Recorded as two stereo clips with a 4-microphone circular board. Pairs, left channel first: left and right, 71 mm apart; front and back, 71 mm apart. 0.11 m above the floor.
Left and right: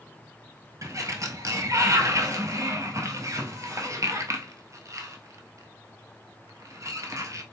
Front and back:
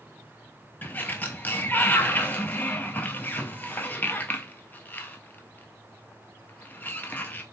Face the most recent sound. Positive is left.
turn(degrees=-60)